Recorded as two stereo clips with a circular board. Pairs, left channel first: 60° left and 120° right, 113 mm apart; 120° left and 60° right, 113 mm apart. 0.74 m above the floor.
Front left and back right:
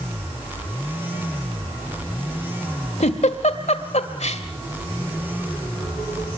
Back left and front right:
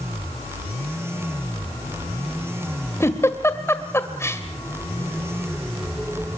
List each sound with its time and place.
3.0 s a giggle: 55° left, 1.8 m